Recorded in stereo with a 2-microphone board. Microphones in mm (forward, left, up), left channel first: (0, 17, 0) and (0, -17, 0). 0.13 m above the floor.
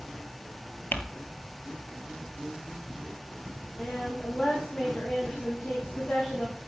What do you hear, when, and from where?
0.9 s crumpling: 65° left (ahead or behind), 1.1 m
3.8 s a woman speaking: 25° left (ahead or behind), 7 m